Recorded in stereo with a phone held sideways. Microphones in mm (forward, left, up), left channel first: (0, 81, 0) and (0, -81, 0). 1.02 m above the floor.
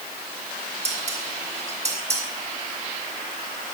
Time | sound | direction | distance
0.8 | dishes clattering | 40° right (ahead or behind) | 7.5 m